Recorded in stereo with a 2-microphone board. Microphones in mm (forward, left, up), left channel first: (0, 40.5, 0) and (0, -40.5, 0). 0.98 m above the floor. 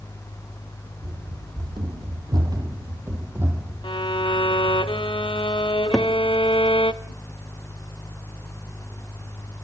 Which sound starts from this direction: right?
Running footsteps, at 1.0 s.